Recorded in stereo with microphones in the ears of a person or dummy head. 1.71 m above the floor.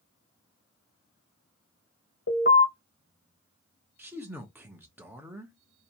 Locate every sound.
2.3 s an alarm: 50° left (ahead or behind), 1.1 m
4.0 s a man speaking: 10° right (ahead or behind), 0.7 m